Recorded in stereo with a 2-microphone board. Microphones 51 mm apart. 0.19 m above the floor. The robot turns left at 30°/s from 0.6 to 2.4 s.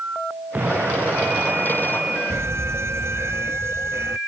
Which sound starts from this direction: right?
An alarm, at 2.3 s.